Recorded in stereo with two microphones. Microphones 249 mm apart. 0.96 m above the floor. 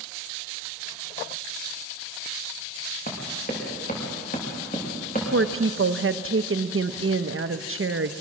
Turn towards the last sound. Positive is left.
turn(degrees=-50)  # may be behind; listen again after turning